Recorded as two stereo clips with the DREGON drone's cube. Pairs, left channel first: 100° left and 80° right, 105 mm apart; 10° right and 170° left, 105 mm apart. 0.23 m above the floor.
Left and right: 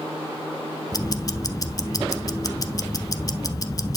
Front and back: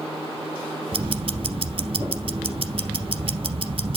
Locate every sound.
0.9 s ticking: 150° left, 0.7 m